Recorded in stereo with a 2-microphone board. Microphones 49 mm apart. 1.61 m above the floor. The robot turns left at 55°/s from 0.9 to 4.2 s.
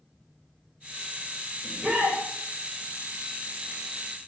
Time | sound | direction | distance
1.6 | a shout | 20° right | 3 m